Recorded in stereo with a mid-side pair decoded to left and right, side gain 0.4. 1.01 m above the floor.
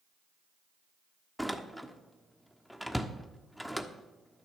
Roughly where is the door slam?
Ahead.